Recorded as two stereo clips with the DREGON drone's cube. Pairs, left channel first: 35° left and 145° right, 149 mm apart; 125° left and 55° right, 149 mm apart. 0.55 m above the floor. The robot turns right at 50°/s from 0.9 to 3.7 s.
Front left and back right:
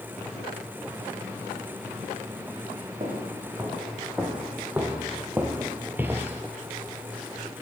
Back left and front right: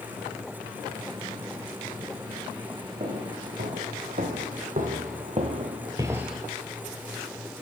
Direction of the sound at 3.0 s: 100° right.